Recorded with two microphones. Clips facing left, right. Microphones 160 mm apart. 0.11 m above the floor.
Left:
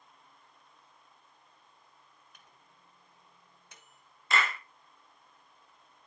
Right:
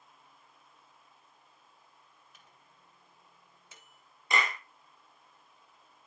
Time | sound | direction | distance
2.3 | a microwave | centre (ahead or behind) | 1.4 m
4.3 | a clap | 15° right (ahead or behind) | 1.0 m